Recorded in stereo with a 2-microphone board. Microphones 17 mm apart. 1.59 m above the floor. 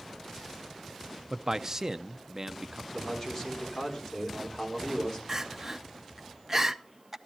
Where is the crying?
20° right (ahead or behind), 0.7 m.